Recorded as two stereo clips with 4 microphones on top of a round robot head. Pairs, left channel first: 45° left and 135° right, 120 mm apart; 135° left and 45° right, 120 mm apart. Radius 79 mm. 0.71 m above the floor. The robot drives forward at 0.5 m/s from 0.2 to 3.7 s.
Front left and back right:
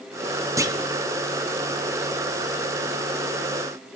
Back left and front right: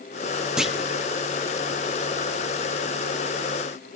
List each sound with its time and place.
0.6 s a clunk: 120° right, 0.8 m; by 0.8 s 135° right, 0.8 m